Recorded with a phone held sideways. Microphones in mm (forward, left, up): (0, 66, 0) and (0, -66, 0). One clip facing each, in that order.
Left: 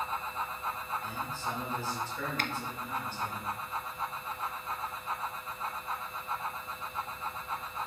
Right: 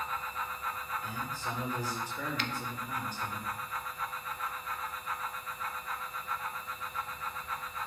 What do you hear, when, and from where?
0.0 s a fan: 25° left (ahead or behind), 0.9 m
1.0 s a man speaking: 15° right (ahead or behind), 4 m
2.4 s a finger snap: 50° left (ahead or behind), 0.7 m